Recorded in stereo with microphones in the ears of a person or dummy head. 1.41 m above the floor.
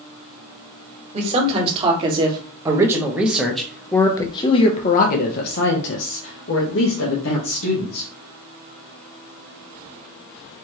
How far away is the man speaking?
About 2.0 m.